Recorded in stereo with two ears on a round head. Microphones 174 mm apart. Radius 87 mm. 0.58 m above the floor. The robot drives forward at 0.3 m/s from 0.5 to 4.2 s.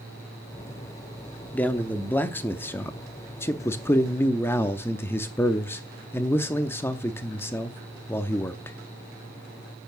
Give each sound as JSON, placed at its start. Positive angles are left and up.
{"t": 1.5, "sound": "a man speaking", "side_deg": 10, "distance_m": 0.8}